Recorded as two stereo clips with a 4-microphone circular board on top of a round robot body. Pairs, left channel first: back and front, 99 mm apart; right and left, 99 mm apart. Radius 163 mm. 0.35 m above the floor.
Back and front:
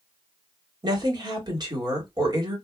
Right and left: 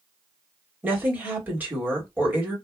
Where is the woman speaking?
20° left, 1.9 m.